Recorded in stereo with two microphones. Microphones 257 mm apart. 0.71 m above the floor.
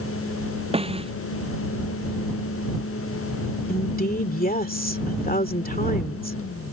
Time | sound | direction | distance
0.7 | a snare drum | 20° right (ahead or behind) | ?
3.7 | a woman speaking | 35° left (ahead or behind) | ?